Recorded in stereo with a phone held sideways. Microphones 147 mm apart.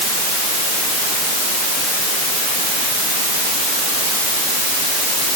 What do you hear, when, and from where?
Only background noise.